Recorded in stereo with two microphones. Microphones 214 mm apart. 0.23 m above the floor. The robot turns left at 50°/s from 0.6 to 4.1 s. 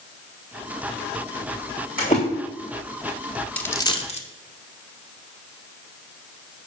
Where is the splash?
40° left (ahead or behind), 3.5 m; by 2.2 s 30° left (ahead or behind), 3.5 m.